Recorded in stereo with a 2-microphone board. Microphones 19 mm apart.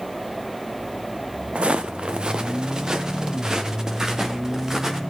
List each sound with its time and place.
1.6 s footsteps: 75° right (ahead or behind), 0.5 m; by 5.0 s 25° right (ahead or behind), 2 m